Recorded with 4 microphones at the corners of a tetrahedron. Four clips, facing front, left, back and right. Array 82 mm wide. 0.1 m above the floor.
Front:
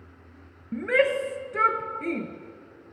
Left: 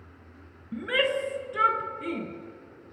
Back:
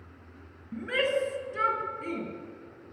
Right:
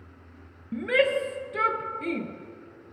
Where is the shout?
20° right, 1.9 m.